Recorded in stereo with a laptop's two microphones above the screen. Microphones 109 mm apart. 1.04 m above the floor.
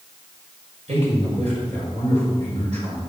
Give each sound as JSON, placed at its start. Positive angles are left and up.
{"t": 0.9, "sound": "a man speaking", "side_deg": -80, "distance_m": 5.0}